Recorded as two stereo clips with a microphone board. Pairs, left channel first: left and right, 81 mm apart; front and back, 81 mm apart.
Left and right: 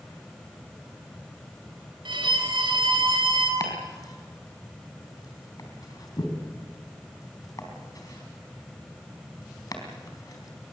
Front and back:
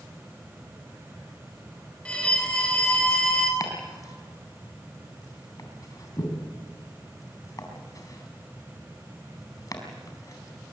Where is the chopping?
45° left, 4 m.